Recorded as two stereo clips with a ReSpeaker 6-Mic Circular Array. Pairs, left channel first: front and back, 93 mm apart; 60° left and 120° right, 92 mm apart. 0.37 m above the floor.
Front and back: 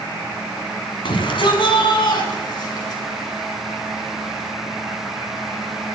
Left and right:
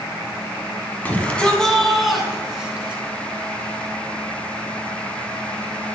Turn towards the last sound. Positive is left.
turn(degrees=-40)